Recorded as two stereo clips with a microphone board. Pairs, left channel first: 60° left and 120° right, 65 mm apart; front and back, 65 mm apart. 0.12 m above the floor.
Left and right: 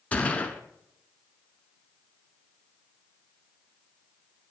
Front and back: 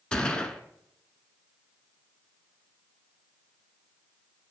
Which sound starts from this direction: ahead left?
A gunshot, at 0.1 s.